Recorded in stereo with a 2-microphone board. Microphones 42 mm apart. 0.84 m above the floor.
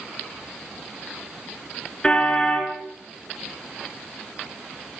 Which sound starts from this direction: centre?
A car horn, at 2.0 s.